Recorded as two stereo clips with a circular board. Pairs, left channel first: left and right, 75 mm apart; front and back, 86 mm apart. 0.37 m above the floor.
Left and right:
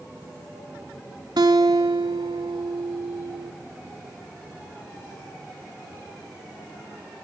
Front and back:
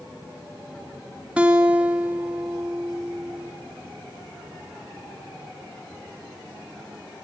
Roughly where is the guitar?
Right.